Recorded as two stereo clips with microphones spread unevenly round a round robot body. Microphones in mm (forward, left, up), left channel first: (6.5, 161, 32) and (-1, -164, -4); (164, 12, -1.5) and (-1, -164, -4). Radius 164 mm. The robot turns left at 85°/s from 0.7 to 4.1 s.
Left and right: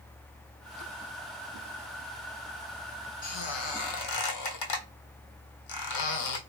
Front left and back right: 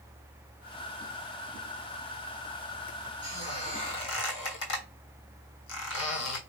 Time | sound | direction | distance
3.2 | a squeak | 150° left | 1.2 m